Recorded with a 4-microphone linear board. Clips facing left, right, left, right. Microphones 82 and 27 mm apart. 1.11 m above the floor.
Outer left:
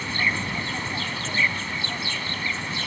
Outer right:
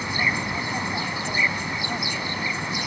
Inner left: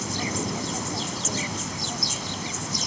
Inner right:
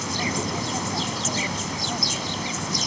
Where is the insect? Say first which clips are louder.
Outer right 1 dB, inner right 2 dB; 15° right (ahead or behind).